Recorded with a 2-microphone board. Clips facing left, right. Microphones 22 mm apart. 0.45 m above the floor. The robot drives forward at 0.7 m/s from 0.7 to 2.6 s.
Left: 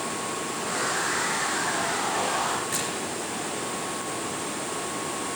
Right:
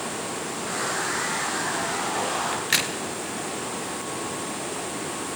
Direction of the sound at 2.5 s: 65° right (ahead or behind).